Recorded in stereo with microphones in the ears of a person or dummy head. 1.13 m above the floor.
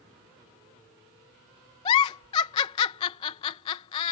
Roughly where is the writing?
No writing in this recording.